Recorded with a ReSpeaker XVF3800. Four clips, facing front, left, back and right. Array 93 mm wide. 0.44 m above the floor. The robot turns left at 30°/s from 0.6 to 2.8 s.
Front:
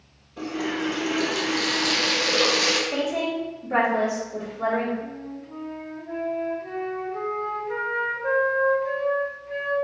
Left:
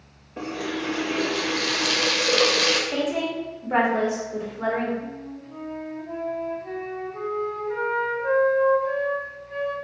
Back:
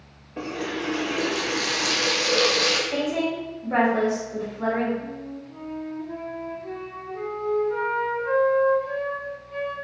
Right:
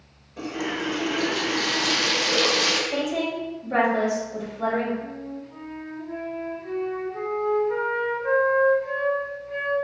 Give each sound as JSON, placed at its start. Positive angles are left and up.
{"t": 0.4, "sound": "a running tap", "azimuth_deg": 145, "distance_m": 0.8}
{"t": 2.9, "sound": "a woman speaking", "azimuth_deg": 85, "distance_m": 1.6}
{"t": 5.0, "sound": "a flute", "azimuth_deg": 25, "distance_m": 1.5}